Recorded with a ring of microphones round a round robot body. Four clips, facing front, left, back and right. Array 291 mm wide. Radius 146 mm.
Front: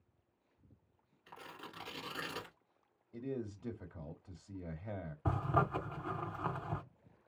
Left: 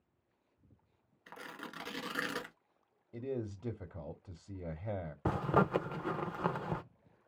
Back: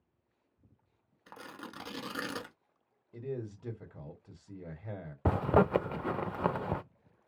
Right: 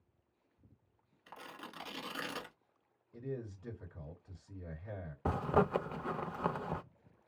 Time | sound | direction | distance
1.3 | tearing paper | 160° left | 1.1 m
3.1 | a man speaking | 105° left | 1.4 m
5.2 | a zipper | 175° left | 0.6 m